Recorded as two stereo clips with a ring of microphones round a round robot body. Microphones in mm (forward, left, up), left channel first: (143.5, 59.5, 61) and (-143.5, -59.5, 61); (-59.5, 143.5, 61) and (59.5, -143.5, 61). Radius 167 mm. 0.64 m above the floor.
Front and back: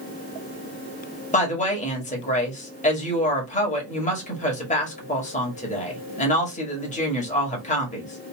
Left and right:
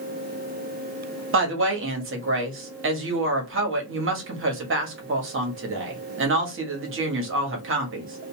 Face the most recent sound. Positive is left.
turn(degrees=-35)